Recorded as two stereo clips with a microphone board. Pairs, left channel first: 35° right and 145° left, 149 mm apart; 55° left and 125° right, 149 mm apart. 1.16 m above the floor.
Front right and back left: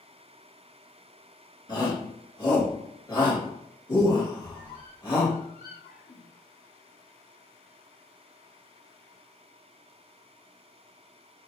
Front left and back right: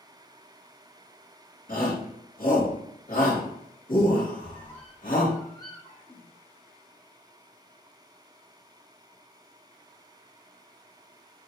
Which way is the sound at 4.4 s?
10° right.